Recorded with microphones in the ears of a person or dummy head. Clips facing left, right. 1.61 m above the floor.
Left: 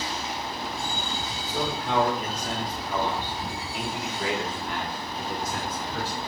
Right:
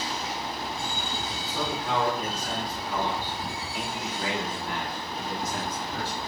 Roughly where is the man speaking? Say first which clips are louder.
Left 2 dB; left.